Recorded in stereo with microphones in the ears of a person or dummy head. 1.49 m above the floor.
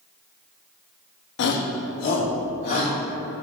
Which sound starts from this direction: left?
A shout, at 1.4 s.